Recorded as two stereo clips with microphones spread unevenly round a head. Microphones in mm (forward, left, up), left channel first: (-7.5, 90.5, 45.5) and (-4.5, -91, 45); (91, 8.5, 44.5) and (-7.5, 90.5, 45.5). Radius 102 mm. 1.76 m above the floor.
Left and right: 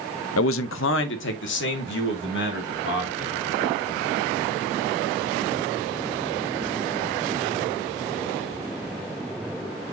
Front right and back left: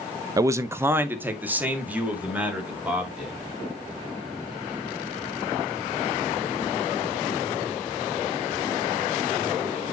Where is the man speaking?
80° left, 0.6 m; by 3.4 s 60° left, 4 m.